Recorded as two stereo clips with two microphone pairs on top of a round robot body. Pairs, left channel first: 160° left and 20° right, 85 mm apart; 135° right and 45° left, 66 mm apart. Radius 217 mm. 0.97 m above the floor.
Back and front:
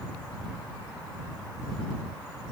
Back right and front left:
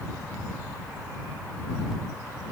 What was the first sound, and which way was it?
Only background noise.